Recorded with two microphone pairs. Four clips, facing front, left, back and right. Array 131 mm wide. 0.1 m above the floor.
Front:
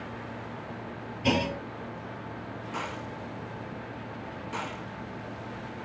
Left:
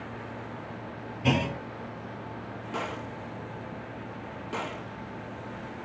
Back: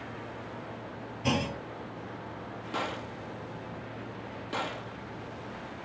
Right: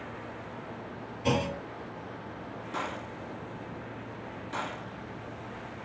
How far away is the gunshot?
About 1.2 m.